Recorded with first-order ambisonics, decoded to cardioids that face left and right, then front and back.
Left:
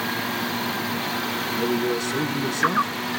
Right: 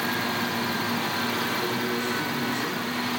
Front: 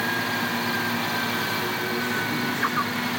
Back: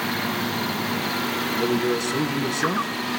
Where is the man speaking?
150° left, 7.5 m.